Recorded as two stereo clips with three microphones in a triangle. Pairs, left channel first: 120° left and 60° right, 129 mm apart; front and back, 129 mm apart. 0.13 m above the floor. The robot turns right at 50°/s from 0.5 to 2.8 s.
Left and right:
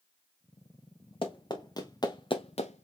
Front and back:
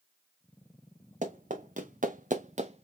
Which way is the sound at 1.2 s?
165° left.